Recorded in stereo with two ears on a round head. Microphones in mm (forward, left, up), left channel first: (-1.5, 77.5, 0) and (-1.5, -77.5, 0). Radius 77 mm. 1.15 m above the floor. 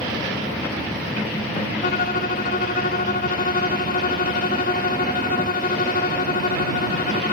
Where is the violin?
50° left (ahead or behind).